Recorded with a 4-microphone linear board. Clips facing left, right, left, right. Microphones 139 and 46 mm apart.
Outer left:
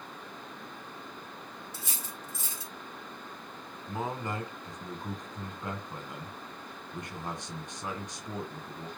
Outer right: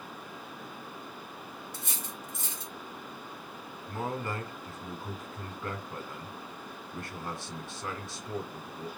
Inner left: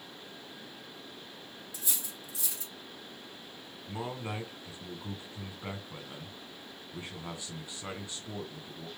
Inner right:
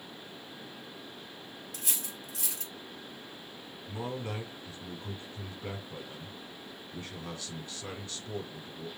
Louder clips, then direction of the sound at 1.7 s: Outer right 1 dB, inner right 1 dB; 60° right (ahead or behind).